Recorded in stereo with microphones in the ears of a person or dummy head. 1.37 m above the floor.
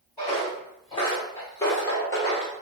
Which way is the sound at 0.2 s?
15° left (ahead or behind).